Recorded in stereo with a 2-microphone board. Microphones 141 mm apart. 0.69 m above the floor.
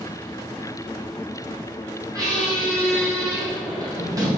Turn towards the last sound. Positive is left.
turn(degrees=-25)  # may be behind; listen again after turning